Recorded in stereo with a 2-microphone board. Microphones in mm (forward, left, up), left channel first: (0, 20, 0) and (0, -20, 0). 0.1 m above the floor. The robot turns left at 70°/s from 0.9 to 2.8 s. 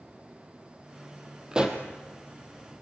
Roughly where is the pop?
Centre.